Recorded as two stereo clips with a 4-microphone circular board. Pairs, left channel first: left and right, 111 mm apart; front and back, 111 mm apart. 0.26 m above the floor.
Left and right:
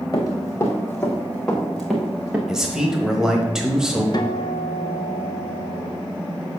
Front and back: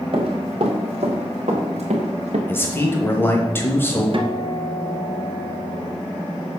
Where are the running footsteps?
145° left, 1.9 m; by 2.4 s 170° right, 1.8 m.